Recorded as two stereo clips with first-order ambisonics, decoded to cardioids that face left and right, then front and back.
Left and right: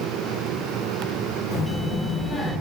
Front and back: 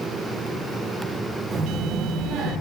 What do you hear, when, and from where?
1.5 s a child speaking: 130° left, 0.8 m; by 2.5 s 150° left, 1.4 m